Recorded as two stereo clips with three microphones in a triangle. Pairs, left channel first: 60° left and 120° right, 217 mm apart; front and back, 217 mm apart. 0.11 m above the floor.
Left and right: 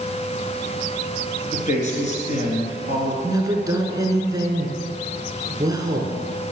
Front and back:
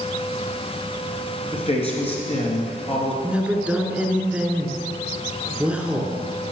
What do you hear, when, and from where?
1.5 s a man speaking: 40° left, 2 m
3.2 s a woman speaking: 110° right, 1.1 m